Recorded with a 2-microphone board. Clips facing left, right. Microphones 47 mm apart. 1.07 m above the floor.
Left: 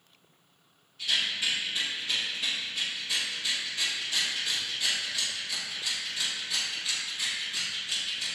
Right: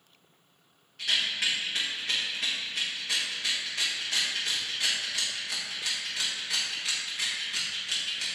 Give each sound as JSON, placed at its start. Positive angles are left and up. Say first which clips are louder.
{"t": 1.0, "sound": "a rattle", "louder": "right 1 dB", "side_deg": -65, "distance_m": 1.2}